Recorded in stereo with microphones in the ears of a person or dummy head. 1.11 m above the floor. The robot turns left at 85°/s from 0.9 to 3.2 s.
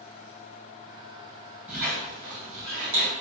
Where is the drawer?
No drawer in this recording.